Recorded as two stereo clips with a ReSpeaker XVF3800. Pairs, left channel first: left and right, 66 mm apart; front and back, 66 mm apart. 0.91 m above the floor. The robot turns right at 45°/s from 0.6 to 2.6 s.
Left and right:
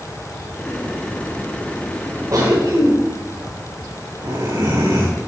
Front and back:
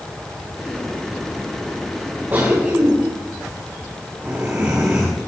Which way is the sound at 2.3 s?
130° right.